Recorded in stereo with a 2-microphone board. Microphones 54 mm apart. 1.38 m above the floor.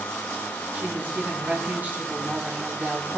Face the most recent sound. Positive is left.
turn(degrees=-30)  # may be behind; listen again after turning